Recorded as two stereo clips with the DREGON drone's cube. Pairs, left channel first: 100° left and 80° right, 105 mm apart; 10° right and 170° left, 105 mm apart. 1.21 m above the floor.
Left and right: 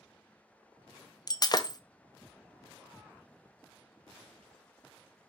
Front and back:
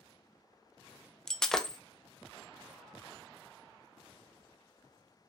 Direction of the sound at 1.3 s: 70° left.